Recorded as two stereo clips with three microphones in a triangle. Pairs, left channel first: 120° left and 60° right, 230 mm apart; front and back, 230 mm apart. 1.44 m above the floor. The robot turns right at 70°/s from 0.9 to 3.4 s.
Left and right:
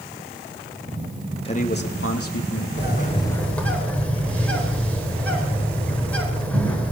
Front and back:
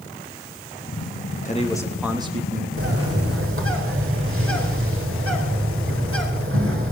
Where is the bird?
160° left, 4.5 m; by 6.9 s 155° right, 4.5 m.